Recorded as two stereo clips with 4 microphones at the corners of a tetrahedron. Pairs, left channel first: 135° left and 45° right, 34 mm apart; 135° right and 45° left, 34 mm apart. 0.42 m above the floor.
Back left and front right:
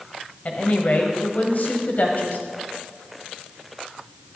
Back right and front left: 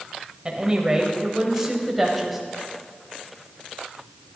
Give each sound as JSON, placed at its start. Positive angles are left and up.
{"t": 0.5, "sound": "a woman speaking", "azimuth_deg": 100, "distance_m": 2.0}